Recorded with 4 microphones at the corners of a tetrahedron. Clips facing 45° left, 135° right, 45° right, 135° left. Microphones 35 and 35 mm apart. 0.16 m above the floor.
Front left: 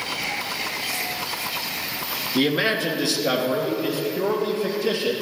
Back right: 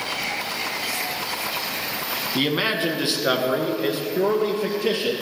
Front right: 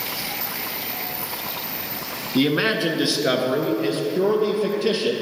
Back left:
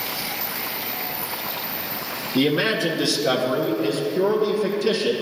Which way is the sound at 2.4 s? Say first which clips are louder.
Front left 2 dB, even; 85° right.